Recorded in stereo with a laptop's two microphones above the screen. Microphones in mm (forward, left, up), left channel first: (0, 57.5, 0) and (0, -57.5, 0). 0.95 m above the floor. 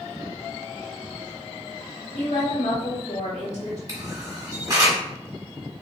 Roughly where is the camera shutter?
Right.